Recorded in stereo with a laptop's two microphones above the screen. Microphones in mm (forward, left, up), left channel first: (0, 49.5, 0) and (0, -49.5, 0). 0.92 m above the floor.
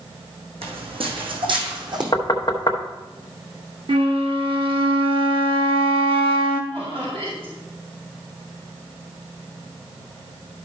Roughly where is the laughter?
Right.